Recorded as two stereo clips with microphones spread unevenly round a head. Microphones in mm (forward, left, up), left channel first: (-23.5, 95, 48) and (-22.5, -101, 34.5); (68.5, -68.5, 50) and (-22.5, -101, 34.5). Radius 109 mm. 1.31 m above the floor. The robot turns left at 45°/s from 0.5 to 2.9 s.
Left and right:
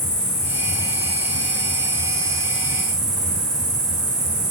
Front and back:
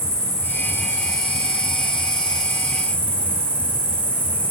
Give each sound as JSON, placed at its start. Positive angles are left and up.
{"t": 0.0, "sound": "an insect", "azimuth_deg": 55, "distance_m": 3.0}